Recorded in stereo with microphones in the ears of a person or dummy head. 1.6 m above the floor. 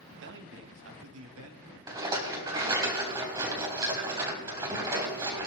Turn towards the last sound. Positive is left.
turn(degrees=-25)  # may be behind; listen again after turning